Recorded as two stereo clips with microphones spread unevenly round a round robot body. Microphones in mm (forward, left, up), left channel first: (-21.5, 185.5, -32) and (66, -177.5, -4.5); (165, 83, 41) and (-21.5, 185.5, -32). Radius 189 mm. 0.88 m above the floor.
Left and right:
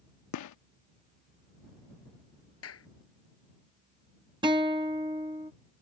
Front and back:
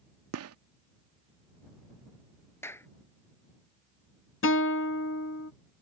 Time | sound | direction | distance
0.3 | a gunshot | 150° left | ?
2.6 | a clap | 50° left | ?
4.4 | a guitar | 5° left | ?